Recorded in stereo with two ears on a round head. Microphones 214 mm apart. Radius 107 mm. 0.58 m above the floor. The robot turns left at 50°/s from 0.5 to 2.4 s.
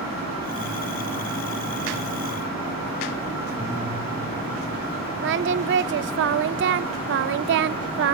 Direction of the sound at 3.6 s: 15° right (ahead or behind).